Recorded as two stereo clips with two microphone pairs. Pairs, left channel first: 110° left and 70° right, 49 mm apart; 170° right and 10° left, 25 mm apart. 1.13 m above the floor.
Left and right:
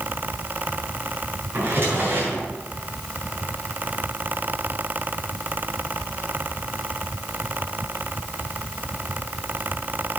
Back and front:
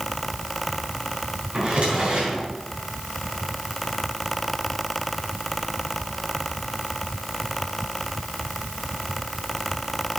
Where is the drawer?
25° right, 4 m.